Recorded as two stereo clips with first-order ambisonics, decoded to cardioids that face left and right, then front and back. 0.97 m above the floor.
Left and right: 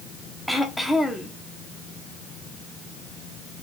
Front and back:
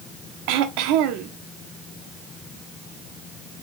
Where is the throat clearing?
Straight behind, 1.1 m.